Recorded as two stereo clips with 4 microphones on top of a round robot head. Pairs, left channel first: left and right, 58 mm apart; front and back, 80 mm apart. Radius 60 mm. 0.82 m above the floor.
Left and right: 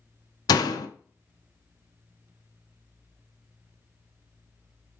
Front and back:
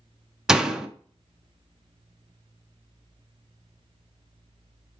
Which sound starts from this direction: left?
A door slam, at 0.5 s.